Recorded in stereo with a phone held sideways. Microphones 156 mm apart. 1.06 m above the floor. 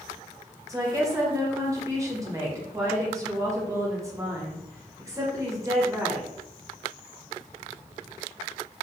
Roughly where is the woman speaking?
Right.